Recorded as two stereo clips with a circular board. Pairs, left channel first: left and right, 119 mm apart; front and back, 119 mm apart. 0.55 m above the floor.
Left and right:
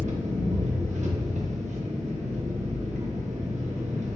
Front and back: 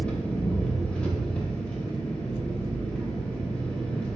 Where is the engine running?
80° right, 0.7 m.